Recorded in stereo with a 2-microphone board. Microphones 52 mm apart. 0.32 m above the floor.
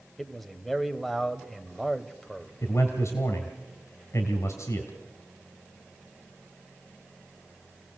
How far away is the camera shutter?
No camera shutter in this recording.